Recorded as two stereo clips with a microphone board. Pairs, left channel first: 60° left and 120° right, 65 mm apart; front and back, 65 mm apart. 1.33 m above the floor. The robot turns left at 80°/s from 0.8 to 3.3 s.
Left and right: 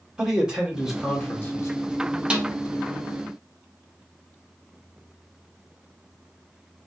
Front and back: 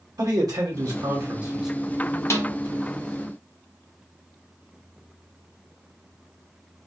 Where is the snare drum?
45° right, 0.7 m; by 2.5 s 65° right, 0.7 m.